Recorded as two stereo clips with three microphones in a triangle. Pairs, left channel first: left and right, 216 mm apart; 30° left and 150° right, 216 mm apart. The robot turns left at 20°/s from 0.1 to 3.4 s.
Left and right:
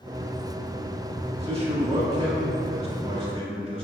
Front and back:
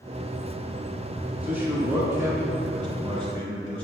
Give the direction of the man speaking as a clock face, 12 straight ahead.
2 o'clock.